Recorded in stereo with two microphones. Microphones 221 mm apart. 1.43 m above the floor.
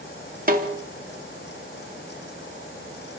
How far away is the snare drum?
About 3 m.